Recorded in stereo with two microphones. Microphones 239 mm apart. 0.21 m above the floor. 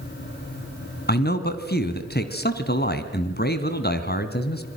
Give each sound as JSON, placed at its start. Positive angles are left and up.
{"t": 1.1, "sound": "a man speaking", "side_deg": 40, "distance_m": 2.0}